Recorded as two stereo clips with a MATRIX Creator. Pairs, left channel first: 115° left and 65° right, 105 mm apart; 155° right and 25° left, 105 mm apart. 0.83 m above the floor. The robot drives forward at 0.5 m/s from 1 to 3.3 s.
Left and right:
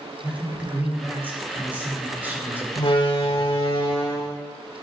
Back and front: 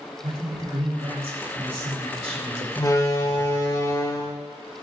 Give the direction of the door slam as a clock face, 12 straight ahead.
7 o'clock.